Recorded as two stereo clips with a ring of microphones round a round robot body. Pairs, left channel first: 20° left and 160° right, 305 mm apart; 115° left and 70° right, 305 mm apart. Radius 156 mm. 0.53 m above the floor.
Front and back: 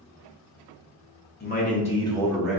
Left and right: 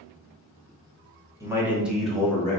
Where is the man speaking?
5° left, 1.0 m; by 2.6 s 125° left, 0.8 m.